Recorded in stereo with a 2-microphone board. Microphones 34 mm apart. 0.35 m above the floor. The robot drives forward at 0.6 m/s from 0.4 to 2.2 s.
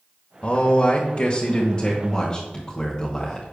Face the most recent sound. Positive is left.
turn(degrees=25)  # may be behind; listen again after turning